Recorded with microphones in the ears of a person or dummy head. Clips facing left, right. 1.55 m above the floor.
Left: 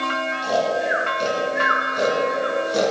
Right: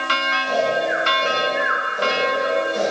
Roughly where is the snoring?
Left.